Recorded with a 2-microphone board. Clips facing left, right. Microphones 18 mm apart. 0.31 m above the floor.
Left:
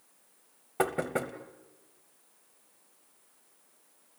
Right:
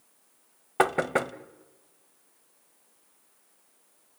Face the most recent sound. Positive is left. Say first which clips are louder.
# right 6 dB
turn(degrees=-30)  # may be behind; listen again after turning